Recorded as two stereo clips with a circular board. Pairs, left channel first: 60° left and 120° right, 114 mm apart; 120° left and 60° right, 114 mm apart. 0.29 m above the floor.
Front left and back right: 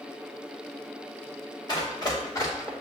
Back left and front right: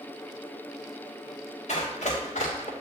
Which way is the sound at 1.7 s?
115° left.